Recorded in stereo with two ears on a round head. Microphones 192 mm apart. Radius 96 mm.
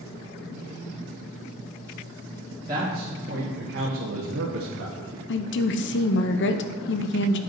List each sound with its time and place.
2.7 s a man speaking: 20° right (ahead or behind), 1.9 m; by 5.2 s 65° right (ahead or behind), 2.0 m
5.3 s a woman speaking: 55° left (ahead or behind), 0.7 m